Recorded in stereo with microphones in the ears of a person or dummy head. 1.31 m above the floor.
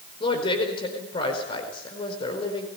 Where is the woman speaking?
30° left (ahead or behind), 4.5 m.